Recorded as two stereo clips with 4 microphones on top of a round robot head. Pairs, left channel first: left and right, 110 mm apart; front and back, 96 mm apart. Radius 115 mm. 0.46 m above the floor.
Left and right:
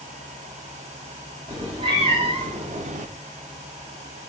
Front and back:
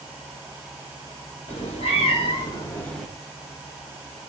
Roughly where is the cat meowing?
Ahead right.